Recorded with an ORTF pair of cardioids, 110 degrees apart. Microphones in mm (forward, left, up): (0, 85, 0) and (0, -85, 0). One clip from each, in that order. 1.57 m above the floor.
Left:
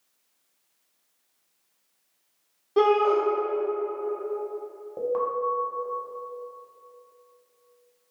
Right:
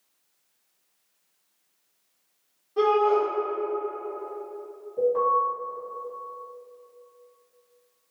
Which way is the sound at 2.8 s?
55° left.